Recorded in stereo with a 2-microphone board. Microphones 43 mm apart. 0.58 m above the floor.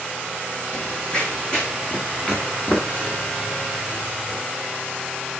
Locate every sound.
0.7 s running footsteps: 25° left (ahead or behind), 1.3 m; by 4.4 s 15° left (ahead or behind), 3.5 m